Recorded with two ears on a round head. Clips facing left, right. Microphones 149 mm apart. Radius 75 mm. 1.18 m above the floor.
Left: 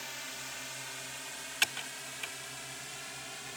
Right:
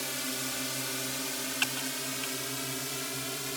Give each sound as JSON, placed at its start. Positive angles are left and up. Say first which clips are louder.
{"t": 0.0, "sound": "a drone", "louder": "right 10 dB", "side_deg": -65}
{"t": 1.6, "sound": "typing on a keyboard", "louder": "right 7 dB", "side_deg": 10}